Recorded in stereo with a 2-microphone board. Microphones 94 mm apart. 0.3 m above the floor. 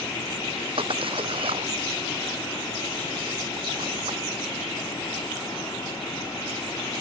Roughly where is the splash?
Right.